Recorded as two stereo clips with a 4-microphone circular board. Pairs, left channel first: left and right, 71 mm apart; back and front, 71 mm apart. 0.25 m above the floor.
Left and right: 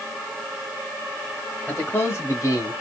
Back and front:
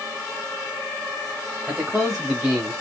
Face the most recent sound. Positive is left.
turn(degrees=85)